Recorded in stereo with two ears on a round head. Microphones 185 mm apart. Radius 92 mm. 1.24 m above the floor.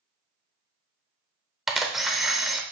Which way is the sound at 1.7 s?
Centre (ahead or behind).